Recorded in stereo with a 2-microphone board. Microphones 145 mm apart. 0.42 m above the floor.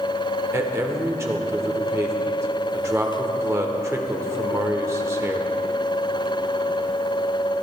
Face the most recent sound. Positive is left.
turn(degrees=-20)  # may be behind; listen again after turning